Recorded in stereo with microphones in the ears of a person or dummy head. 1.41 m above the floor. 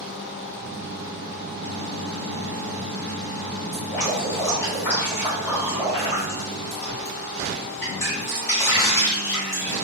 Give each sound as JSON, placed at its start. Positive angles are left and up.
{"t": 3.7, "sound": "dripping", "side_deg": 15, "distance_m": 1.4}